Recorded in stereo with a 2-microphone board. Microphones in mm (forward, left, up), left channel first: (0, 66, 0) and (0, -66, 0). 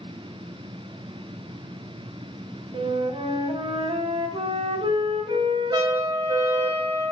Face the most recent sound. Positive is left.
turn(degrees=-25)  # may be behind; listen again after turning